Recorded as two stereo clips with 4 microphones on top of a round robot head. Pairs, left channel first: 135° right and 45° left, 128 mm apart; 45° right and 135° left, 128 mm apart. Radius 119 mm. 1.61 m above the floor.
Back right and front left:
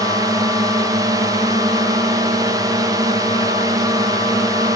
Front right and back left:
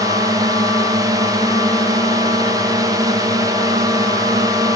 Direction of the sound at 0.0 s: 90° left.